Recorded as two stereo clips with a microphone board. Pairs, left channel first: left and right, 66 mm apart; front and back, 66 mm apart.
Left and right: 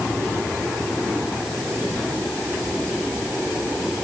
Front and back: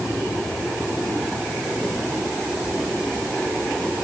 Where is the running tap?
No running tap in this recording.